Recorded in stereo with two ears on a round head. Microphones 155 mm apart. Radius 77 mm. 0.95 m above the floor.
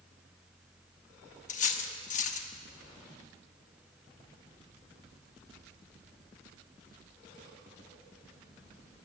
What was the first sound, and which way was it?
Cutlery clinking, 45° left (ahead or behind).